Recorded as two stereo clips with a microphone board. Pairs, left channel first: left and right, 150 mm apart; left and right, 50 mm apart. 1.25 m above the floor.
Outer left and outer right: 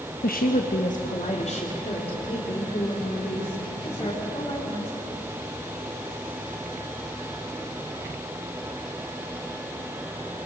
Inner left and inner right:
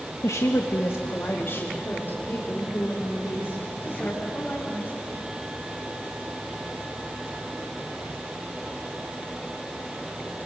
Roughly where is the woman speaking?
Left.